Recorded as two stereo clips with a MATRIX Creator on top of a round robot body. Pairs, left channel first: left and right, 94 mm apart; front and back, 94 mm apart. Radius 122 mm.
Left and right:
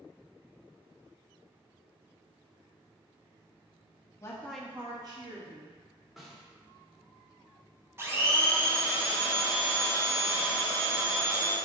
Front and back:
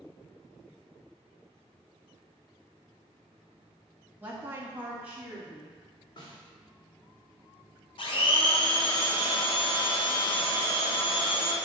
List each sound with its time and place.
4.2 s a woman speaking: 120° left, 0.9 m; by 5.8 s 95° right, 1.7 m
6.2 s a snare drum: straight ahead, 1.5 m
8.0 s a blender: 25° right, 0.9 m